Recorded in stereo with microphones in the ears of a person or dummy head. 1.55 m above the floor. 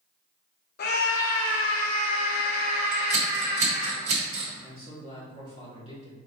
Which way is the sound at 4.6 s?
35° left (ahead or behind).